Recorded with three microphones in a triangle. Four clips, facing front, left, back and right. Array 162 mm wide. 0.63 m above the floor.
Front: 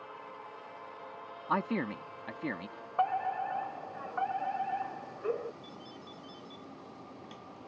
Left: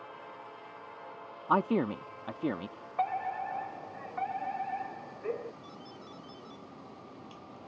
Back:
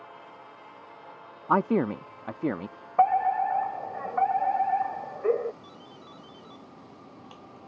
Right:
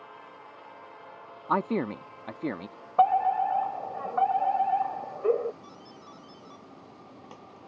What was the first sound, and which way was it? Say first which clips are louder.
A man speaking: even, back 8 dB; 170° right.